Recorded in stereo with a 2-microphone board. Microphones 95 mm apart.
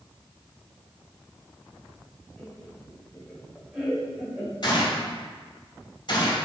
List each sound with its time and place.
2.4 s laughter: 5° left (ahead or behind), 2.0 m; by 4.5 s 15° right (ahead or behind), 1.4 m
4.6 s a gunshot: 50° left (ahead or behind), 2 m